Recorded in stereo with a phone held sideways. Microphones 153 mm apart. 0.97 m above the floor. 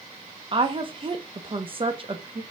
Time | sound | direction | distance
0.5 | a woman speaking | 35° right (ahead or behind) | 0.6 m